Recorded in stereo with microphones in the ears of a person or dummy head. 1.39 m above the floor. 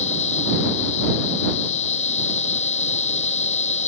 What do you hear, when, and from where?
0.0 s a machine running: 40° left (ahead or behind)